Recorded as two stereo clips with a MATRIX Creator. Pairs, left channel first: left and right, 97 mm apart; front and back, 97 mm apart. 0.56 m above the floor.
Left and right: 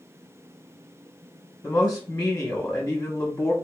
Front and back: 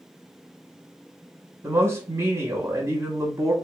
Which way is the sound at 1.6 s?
145° left.